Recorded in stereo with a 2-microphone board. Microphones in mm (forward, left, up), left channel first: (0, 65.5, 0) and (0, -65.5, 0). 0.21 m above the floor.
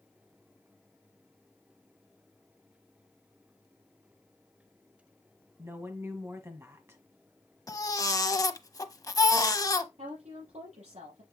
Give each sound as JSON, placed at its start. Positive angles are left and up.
{"t": 5.6, "sound": "a woman speaking", "side_deg": -20, "distance_m": 1.7}
{"t": 7.7, "sound": "a baby crying", "side_deg": 30, "distance_m": 0.6}
{"t": 10.0, "sound": "a woman speaking", "side_deg": -70, "distance_m": 5.5}